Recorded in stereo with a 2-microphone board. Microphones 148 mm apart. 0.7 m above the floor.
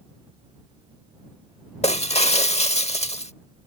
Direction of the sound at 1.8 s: 45° left (ahead or behind).